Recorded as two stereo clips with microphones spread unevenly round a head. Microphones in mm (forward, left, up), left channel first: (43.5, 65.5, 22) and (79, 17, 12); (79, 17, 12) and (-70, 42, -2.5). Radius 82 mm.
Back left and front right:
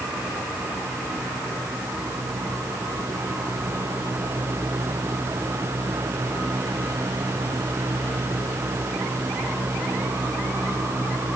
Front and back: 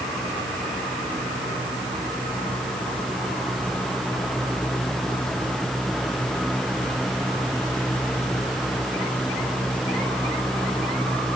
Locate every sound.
Only background noise.